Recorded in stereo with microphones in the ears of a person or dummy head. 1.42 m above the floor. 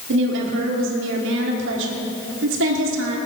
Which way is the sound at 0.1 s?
70° right (ahead or behind).